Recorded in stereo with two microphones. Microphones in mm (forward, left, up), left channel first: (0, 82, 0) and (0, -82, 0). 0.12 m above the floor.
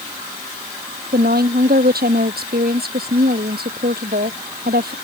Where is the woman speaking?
70° right (ahead or behind).